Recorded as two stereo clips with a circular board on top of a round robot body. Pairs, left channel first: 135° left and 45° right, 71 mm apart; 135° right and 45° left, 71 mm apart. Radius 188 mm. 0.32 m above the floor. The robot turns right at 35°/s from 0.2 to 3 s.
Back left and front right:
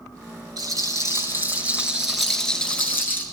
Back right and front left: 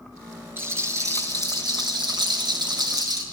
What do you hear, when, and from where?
0.6 s a rattle: 15° right, 7 m; by 3.2 s 70° left, 7 m